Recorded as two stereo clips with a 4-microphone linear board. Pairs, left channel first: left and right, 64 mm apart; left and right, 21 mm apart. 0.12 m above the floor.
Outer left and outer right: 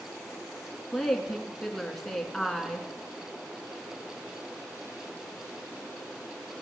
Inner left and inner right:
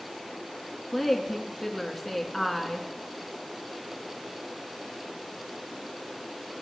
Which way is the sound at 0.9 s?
Centre (ahead or behind).